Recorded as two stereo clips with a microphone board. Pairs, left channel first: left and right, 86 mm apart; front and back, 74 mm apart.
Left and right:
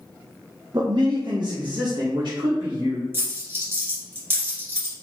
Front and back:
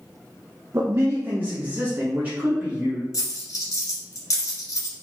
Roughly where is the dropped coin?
Ahead right.